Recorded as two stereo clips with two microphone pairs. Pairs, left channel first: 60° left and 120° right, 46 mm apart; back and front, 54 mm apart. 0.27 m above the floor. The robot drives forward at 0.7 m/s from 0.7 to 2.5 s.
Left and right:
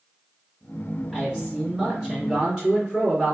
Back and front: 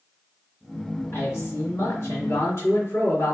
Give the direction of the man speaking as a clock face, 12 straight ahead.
7 o'clock.